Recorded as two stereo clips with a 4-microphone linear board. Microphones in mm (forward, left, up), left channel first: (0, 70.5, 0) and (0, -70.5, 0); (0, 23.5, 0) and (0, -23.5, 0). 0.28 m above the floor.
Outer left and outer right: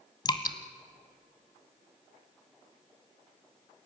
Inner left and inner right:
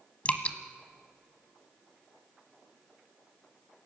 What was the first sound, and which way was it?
Dripping, 30° left (ahead or behind).